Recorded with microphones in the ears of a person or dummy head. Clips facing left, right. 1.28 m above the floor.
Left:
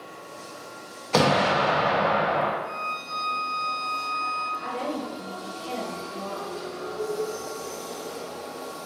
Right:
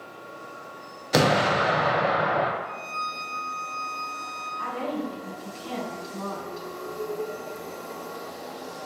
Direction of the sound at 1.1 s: 20° right (ahead or behind).